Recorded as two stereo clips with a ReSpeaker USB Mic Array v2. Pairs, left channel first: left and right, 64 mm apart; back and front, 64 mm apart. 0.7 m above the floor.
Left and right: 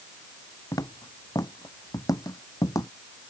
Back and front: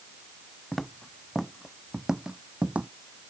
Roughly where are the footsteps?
Left.